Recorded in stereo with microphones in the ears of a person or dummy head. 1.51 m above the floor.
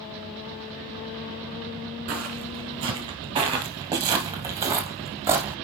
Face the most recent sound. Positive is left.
turn(degrees=-15)  # may be behind; listen again after turning